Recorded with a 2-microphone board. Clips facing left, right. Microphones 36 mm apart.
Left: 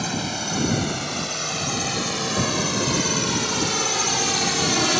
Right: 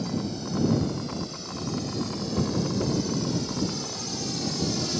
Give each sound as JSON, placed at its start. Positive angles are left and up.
{"t": 0.0, "sound": "a drone", "side_deg": 85}